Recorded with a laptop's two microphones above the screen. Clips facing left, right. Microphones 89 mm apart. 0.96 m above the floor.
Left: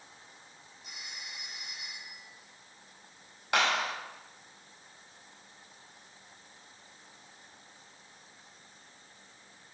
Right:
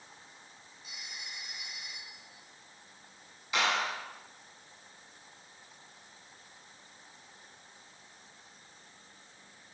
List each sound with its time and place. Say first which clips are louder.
0.8 s a phone ringing: even; 80° left, 7.5 m
3.5 s a clap: left 2 dB; 60° left (ahead or behind), 4.5 m